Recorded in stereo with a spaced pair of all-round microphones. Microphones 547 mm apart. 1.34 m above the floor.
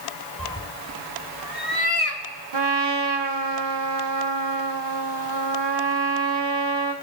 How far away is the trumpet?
About 1.0 m.